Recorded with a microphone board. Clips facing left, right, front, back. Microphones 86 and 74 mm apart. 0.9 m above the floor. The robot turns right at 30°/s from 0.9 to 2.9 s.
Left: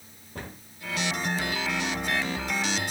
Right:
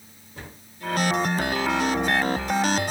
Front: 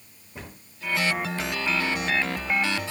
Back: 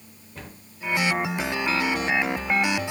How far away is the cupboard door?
About 0.9 m.